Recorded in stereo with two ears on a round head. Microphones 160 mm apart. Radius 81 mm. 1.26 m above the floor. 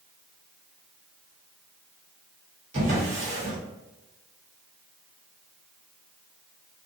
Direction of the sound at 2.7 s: 40° right (ahead or behind).